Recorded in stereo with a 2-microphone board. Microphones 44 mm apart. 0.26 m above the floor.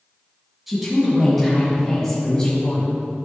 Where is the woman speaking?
5° right (ahead or behind), 2.5 m; by 2.9 s 25° left (ahead or behind), 1.7 m.